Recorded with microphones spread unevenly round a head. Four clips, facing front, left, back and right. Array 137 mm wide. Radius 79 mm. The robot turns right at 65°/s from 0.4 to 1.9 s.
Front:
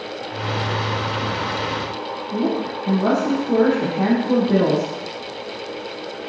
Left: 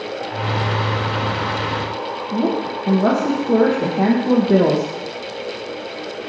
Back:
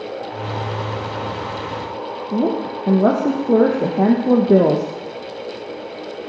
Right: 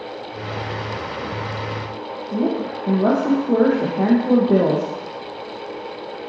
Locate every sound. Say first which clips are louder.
2.3 s a woman speaking: left 1 dB, back 2 dB; 175° left, 0.9 m